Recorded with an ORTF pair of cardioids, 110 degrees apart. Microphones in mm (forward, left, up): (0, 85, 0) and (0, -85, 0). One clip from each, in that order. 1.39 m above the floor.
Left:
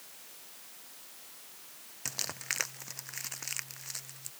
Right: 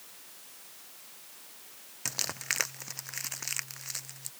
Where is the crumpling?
15° right.